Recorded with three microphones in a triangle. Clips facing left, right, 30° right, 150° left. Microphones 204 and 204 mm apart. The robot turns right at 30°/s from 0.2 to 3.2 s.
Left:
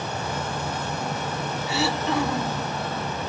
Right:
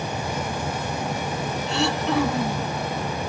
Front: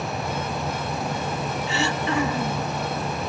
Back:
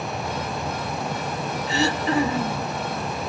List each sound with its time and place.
1.7 s throat clearing: 170° left, 1.0 m; by 2.7 s 160° right, 1.0 m